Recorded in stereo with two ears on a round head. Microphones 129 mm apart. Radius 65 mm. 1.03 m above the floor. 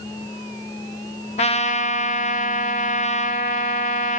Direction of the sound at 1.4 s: 45° left (ahead or behind).